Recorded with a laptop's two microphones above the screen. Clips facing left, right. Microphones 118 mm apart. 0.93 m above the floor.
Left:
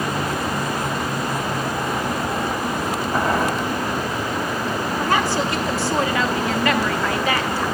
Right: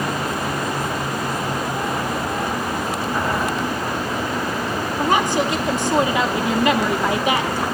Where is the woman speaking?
20° right (ahead or behind), 0.7 m.